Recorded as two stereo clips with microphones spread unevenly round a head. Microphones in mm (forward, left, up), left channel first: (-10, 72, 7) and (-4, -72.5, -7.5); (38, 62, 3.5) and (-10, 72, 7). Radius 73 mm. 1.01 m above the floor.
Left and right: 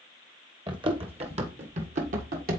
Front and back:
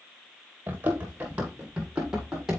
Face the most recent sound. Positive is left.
turn(degrees=-110)